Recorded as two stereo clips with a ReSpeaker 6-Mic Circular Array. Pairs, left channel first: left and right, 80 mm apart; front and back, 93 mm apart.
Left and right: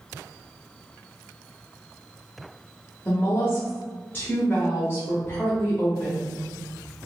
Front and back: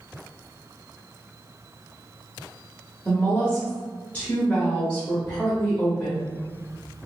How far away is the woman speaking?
About 0.9 m.